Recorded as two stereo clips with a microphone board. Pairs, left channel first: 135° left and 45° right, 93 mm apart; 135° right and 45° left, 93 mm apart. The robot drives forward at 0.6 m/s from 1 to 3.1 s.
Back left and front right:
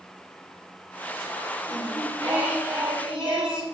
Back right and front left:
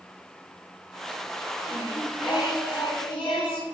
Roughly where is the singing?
Right.